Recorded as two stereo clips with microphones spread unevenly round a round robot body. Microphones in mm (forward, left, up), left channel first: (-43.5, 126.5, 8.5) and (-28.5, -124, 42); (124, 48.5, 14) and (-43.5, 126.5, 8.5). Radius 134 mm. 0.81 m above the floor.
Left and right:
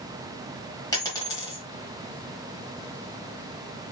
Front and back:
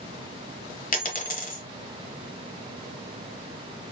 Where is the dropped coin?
15° left, 1.1 m.